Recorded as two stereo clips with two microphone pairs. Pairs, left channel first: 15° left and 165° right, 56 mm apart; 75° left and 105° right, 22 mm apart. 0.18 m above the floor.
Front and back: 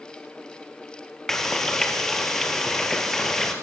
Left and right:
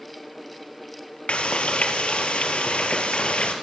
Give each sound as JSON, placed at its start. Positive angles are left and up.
{"t": 1.3, "sound": "frying", "azimuth_deg": 100, "distance_m": 3.5}